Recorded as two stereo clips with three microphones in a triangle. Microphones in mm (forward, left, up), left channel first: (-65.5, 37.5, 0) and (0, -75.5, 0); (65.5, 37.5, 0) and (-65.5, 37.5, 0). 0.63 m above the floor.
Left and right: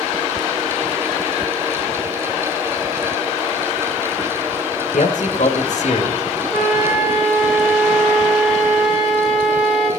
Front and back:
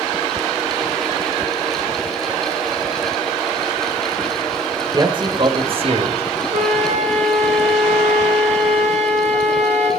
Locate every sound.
4.9 s a man speaking: 125° left, 2 m; by 6.2 s 150° left, 2.5 m
6.5 s a flute: 145° right, 5 m